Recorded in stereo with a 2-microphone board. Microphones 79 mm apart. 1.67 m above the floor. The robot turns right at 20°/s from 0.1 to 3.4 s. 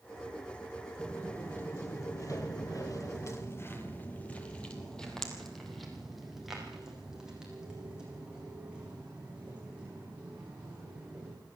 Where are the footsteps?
15° left (ahead or behind), 3 m; by 11.3 s 15° right (ahead or behind), 9.5 m.